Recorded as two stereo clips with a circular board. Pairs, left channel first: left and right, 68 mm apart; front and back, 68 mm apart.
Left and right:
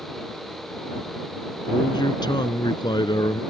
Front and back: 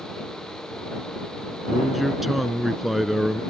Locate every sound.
1.7 s a man speaking: 90° left